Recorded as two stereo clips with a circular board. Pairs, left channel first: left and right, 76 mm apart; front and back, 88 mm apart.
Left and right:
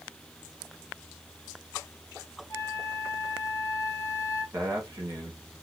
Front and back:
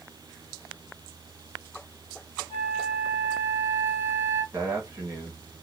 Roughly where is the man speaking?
Behind right.